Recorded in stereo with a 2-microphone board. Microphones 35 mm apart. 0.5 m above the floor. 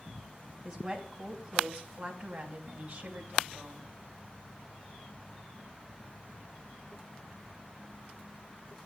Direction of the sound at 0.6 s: 20° right (ahead or behind).